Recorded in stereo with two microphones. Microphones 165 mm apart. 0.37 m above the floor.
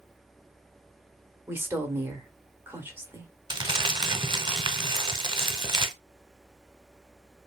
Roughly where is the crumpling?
Right.